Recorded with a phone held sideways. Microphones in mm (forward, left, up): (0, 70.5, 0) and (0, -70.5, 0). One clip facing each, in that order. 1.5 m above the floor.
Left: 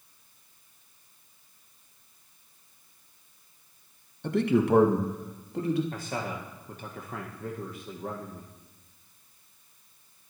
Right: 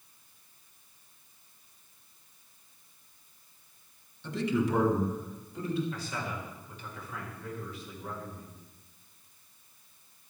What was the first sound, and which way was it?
A man speaking, 55° left (ahead or behind).